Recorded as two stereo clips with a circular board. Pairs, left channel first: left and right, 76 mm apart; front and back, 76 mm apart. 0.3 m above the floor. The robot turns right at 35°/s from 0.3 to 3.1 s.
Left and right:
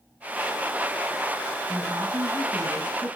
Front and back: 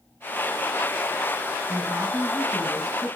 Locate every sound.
1.7 s a woman speaking: 130° right, 3.5 m; by 3.2 s 80° right, 3.5 m